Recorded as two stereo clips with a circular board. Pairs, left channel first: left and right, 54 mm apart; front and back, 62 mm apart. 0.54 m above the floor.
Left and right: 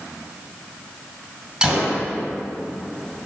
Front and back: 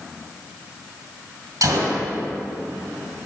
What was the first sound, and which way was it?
A gunshot, 165° right.